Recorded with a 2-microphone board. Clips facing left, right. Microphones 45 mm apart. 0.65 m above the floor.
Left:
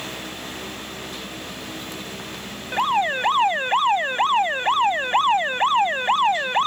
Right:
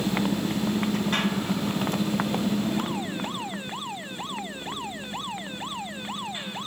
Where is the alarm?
65° left (ahead or behind).